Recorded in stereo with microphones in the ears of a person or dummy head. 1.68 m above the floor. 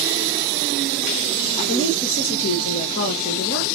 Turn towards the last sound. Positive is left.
turn(degrees=45)  # may be behind; listen again after turning